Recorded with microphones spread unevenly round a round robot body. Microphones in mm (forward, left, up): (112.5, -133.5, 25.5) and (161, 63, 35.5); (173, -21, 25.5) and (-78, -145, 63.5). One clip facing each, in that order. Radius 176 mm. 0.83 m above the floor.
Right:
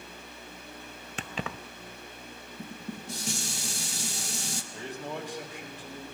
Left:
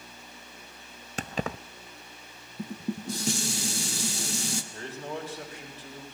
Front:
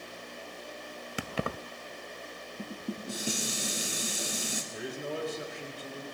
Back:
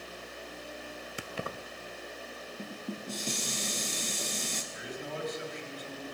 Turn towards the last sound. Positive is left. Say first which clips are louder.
# even, front 5 dB
turn(degrees=-10)